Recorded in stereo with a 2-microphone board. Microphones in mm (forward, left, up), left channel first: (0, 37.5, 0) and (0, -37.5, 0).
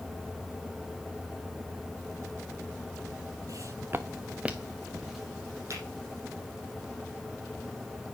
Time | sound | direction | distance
3.5 | footsteps | 55° right (ahead or behind) | 0.7 m
5.7 | a finger snap | 40° right (ahead or behind) | 4 m